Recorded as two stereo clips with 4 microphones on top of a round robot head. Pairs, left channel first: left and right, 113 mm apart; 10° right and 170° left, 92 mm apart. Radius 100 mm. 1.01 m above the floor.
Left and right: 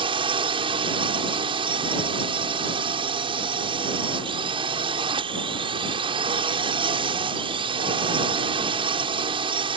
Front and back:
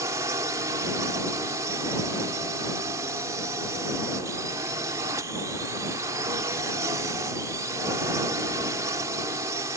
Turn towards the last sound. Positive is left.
turn(degrees=-130)